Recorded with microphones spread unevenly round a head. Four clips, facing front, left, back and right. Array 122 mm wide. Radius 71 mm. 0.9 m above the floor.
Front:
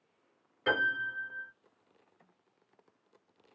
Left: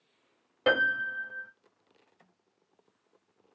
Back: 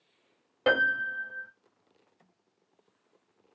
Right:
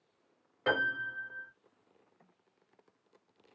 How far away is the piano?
About 1.9 m.